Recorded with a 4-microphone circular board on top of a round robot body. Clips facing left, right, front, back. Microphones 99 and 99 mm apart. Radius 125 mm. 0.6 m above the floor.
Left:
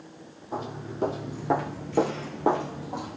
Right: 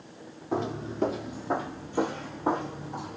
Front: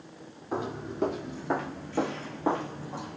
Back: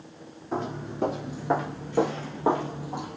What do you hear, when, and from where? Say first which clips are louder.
0.5 s footsteps: right 4 dB, back 2 dB; 80° right, 0.6 m; by 3.2 s 105° left, 1.5 m